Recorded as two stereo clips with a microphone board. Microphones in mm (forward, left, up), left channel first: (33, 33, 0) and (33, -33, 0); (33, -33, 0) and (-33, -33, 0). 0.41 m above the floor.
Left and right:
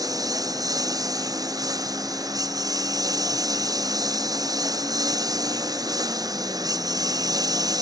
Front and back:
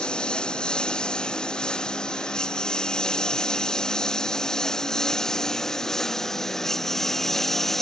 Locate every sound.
0.0 s a lawn mower: 75° right; by 7.8 s 85° right